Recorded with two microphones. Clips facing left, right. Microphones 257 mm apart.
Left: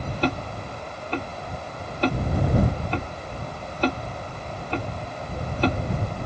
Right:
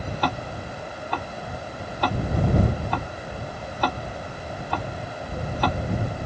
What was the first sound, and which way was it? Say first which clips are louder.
Ticking: left 5 dB; 25° left (ahead or behind).